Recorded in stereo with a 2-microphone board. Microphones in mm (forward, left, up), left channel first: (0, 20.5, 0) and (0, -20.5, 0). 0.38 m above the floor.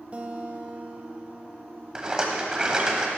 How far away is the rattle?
About 1.4 m.